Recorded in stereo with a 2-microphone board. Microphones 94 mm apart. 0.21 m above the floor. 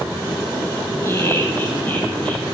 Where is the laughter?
25° left (ahead or behind), 5 m; by 2.4 s 15° left (ahead or behind), 5.5 m.